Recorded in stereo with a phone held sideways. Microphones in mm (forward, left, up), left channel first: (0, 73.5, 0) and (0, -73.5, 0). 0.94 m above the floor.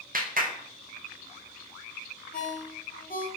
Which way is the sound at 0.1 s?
70° right (ahead or behind).